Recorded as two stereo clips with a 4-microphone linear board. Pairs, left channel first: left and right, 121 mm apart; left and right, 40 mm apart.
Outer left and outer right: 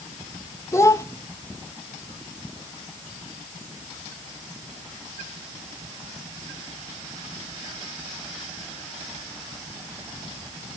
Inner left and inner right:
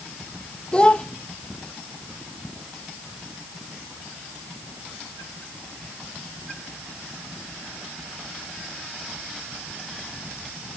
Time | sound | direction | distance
0.7 | a child speaking | 25° left (ahead or behind) | 0.5 m